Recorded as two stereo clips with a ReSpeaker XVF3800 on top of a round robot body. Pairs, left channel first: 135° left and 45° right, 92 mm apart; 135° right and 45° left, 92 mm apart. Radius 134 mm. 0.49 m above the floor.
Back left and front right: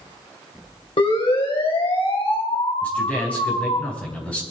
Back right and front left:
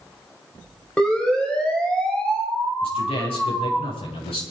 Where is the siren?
145° left, 5 m.